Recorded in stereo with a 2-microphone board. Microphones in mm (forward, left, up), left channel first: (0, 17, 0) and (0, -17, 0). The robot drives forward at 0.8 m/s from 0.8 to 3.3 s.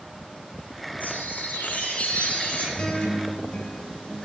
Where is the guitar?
30° left (ahead or behind), 2.5 m; by 4.2 s 35° left (ahead or behind), 2 m.